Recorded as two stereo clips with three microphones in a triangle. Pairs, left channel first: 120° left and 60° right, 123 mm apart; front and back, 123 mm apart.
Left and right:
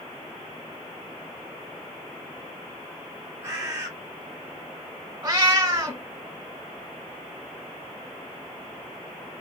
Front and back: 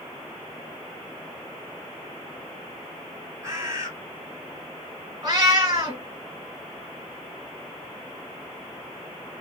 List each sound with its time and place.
3.4 s a bird: 125° right, 1.5 m
5.2 s a cat meowing: 125° right, 1.3 m